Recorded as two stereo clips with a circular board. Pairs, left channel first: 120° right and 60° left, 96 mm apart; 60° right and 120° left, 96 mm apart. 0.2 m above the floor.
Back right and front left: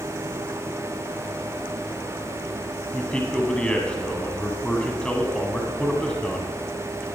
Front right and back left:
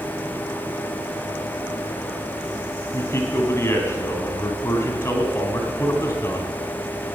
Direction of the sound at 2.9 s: 50° right.